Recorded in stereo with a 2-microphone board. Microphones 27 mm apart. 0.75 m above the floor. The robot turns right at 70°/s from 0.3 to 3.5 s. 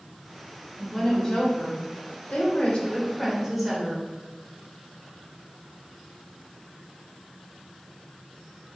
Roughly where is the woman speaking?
Ahead.